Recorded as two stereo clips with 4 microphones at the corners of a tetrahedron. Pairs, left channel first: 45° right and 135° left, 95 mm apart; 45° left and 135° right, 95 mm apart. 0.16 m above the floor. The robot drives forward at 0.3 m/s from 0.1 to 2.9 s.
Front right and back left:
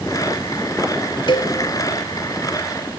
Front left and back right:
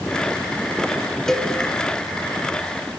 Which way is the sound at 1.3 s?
40° right.